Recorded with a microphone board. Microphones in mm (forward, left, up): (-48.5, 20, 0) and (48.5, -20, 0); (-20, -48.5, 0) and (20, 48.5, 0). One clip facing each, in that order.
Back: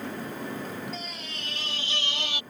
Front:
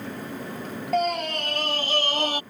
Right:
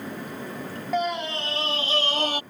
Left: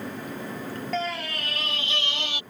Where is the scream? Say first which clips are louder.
Front 15 dB, right 5 dB; 40° right; by 2.4 s 70° right.